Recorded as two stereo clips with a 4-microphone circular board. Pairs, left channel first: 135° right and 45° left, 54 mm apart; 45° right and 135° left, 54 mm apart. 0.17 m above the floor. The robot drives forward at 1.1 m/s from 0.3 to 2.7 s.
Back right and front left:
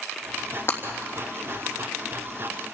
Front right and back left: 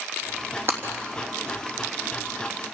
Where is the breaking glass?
Straight behind, 3.5 m.